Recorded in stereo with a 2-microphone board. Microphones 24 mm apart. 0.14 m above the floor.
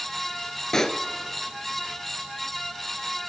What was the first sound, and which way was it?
A pop, 25° left (ahead or behind).